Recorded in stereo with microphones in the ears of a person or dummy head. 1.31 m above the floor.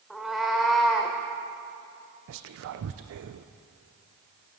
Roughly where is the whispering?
Right.